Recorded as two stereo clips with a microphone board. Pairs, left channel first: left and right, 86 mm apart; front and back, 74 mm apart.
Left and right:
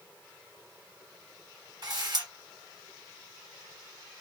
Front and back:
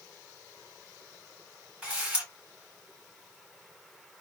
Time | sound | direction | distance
1.8 | a camera shutter | 105° right | 2.0 m